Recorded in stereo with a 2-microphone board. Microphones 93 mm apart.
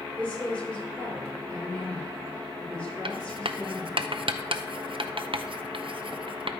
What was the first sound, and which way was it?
A woman speaking, 15° left (ahead or behind).